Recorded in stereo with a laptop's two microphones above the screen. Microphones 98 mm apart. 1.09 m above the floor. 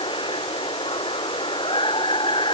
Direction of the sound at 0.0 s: 60° left (ahead or behind).